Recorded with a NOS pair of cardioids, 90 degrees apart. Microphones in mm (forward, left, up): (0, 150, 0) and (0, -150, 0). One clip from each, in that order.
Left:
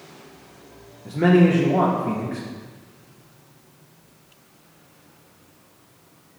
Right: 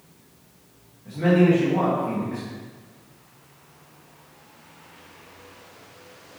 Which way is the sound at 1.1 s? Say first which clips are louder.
Left 2 dB; 55° left.